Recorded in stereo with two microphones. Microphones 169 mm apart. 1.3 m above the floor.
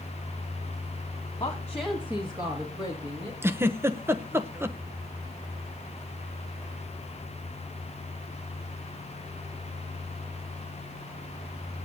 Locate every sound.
1.4 s a woman speaking: 25° left (ahead or behind), 1.3 m; by 3.3 s 35° right (ahead or behind), 3 m
3.4 s a giggle: 15° right (ahead or behind), 0.8 m